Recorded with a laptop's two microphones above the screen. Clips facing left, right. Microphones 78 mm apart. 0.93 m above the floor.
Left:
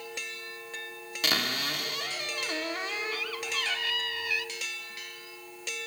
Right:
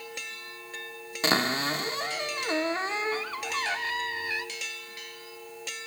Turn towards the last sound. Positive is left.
turn(degrees=-30)  # may be behind; listen again after turning